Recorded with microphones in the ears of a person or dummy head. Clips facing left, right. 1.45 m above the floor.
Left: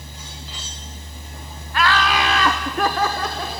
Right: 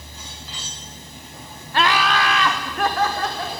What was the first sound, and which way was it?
Laughter, 35° right (ahead or behind).